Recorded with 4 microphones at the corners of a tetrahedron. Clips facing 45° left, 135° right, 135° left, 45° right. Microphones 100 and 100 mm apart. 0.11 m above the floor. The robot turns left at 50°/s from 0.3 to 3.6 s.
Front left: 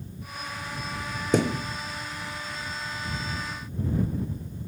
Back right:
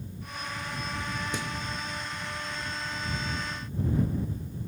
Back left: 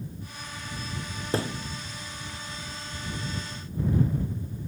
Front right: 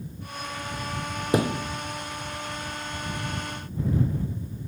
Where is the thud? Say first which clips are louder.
Front left 11 dB, front right 6 dB; 30° left; by 1.6 s 10° left.